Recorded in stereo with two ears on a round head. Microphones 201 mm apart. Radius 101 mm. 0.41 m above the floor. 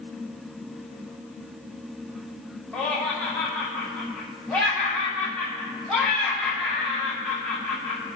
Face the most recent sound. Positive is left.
turn(degrees=5)  # may be behind; listen again after turning